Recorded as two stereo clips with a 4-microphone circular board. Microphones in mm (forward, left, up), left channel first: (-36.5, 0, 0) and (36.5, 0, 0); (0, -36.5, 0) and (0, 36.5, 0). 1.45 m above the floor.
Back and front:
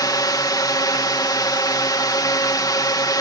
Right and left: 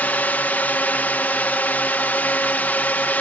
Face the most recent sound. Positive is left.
turn(degrees=-155)